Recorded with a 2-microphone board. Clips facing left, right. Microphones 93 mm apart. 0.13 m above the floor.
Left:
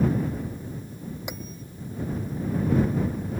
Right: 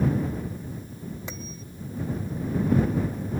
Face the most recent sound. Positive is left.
turn(degrees=15)  # may be behind; listen again after turning